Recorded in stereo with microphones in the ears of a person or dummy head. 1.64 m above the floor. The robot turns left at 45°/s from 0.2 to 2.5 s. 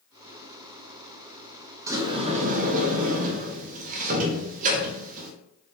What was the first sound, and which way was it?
A sliding door, 10° right (ahead or behind).